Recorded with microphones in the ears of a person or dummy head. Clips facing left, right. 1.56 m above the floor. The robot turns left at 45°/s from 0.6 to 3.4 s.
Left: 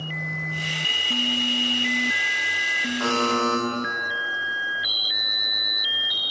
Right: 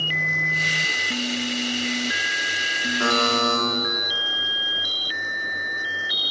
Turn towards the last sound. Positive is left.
turn(degrees=-10)  # may be behind; listen again after turning